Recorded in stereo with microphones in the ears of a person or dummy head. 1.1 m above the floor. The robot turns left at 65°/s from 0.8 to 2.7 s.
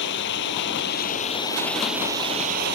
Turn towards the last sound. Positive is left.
turn(degrees=-60)